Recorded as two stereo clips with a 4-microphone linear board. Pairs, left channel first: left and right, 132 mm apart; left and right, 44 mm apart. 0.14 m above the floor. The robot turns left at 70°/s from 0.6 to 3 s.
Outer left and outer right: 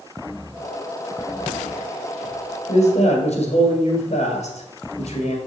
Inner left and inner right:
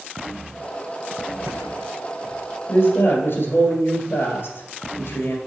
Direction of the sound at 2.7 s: 60° left (ahead or behind).